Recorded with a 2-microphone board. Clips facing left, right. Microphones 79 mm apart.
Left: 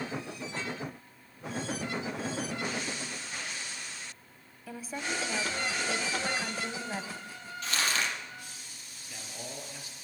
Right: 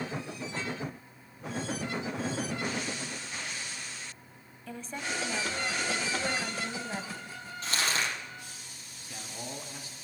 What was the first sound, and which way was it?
A woman speaking, 5° left (ahead or behind).